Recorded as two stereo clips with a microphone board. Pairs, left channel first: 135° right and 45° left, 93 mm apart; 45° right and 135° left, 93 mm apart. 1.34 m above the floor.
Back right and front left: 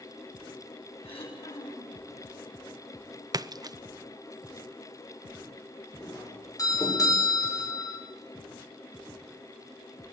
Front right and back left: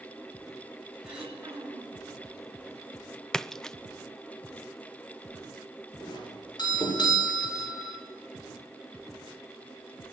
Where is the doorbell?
85° right, 7.5 m.